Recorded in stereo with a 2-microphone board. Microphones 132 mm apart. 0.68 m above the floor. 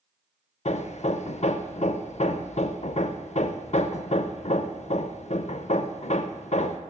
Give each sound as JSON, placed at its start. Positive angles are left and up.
{"t": 0.7, "sound": "hammering", "side_deg": 60, "distance_m": 0.5}